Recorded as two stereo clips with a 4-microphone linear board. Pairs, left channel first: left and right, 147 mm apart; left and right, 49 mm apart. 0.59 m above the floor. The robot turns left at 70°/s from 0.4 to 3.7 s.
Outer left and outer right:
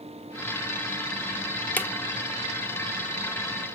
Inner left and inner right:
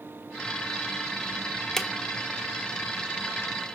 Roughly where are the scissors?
I don't hear scissors.